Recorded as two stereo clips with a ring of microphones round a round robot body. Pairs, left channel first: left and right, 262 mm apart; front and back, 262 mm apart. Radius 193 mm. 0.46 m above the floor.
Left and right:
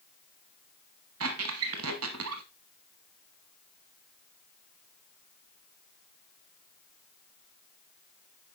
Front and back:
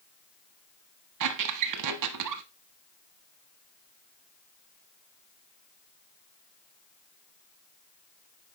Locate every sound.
1.2 s a squeak: 145° right, 0.8 m